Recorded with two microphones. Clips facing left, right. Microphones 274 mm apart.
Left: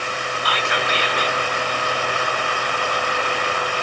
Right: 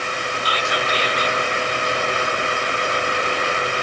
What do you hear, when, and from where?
0.5 s whispering: 65° left (ahead or behind), 0.5 m